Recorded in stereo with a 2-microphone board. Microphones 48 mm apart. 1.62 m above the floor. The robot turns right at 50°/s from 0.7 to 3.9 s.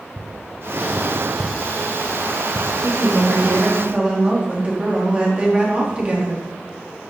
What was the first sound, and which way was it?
Tapping, 70° left (ahead or behind).